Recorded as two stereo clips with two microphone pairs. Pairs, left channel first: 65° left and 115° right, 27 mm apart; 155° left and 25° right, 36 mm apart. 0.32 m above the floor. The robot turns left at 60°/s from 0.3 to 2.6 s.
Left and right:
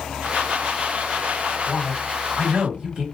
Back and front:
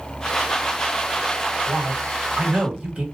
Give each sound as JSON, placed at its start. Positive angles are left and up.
{"t": 1.7, "sound": "a man speaking", "azimuth_deg": -10, "distance_m": 1.6}